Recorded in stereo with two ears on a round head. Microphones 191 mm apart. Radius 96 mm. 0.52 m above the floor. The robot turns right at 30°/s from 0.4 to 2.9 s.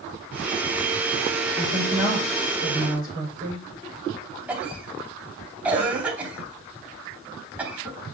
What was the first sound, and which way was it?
A woman speaking, 120° left.